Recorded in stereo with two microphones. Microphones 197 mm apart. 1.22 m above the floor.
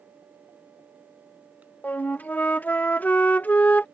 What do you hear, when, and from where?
1.8 s a flute: 10° left (ahead or behind)